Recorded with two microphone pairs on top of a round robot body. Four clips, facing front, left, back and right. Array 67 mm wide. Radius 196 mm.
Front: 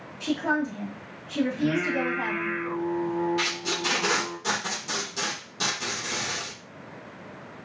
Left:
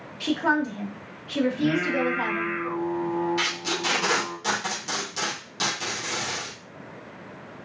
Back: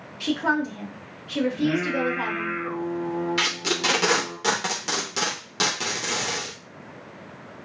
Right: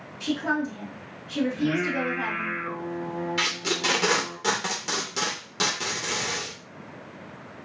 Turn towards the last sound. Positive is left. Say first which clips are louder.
# even, back 3 dB
turn(degrees=-160)